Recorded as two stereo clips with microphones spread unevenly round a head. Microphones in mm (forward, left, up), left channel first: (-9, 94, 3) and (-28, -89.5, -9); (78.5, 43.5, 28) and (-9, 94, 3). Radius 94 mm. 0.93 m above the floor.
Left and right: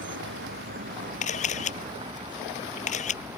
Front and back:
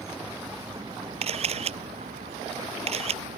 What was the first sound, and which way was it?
A vehicle, 120° right.